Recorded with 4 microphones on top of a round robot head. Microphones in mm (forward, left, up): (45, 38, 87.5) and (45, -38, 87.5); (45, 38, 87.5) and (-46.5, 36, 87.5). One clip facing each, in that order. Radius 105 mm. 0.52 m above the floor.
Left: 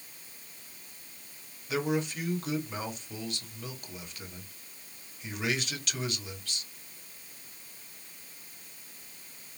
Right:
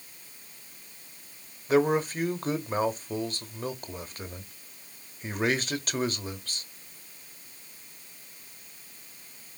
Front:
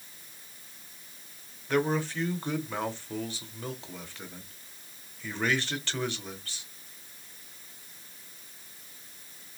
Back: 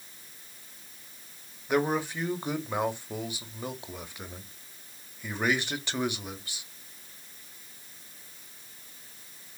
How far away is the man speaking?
About 0.9 m.